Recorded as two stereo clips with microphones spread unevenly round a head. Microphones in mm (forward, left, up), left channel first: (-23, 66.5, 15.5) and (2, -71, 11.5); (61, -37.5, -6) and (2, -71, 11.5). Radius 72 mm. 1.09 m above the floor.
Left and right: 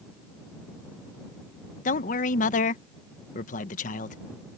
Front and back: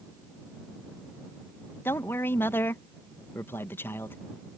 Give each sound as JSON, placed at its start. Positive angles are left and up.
{"t": 1.9, "sound": "a man speaking", "azimuth_deg": 80}